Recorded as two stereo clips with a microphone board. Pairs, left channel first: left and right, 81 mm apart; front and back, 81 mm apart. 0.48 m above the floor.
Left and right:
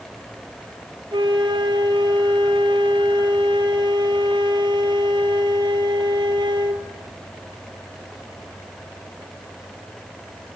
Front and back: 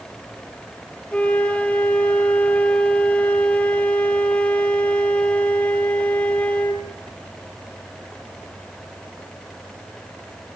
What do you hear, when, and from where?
1.1 s a flute: 75° right, 2 m